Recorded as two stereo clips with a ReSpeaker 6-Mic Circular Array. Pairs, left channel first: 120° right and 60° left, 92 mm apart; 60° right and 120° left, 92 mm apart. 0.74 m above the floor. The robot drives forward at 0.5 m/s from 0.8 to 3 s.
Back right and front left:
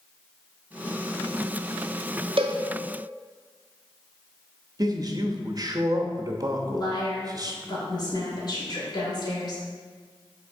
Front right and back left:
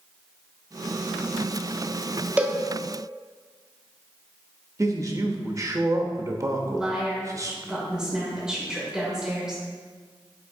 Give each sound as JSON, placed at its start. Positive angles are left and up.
{"t": 2.4, "sound": "a cowbell", "azimuth_deg": 50, "distance_m": 0.5}
{"t": 4.8, "sound": "a man speaking", "azimuth_deg": 85, "distance_m": 0.7}
{"t": 6.7, "sound": "a woman speaking", "azimuth_deg": -160, "distance_m": 2.5}